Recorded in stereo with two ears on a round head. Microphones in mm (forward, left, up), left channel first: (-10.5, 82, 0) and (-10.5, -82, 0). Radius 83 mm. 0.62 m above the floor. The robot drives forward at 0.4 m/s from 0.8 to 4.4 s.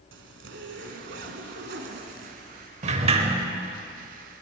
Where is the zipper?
65° right (ahead or behind), 1.0 m; by 2.7 s 50° right (ahead or behind), 1.2 m.